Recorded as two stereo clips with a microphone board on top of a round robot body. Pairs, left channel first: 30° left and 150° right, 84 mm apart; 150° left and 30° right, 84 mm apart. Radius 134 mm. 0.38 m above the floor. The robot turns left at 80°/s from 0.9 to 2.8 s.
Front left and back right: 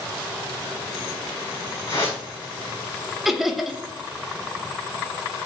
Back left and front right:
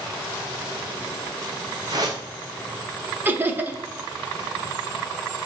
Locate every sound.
1.9 s a whoosh: straight ahead, 2 m; by 2.2 s 30° right, 2 m
3.2 s laughter: 65° right, 0.9 m